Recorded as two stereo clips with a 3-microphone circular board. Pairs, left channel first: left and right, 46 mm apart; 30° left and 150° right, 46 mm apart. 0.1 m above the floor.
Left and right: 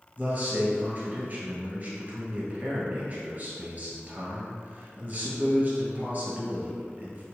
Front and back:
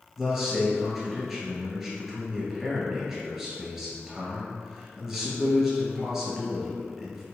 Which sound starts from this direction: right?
A man speaking, at 0.2 s.